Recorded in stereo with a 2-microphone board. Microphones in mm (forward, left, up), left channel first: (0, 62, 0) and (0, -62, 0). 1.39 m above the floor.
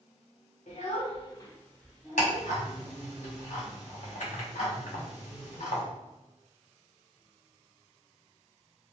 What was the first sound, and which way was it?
A child speaking, 70° left (ahead or behind).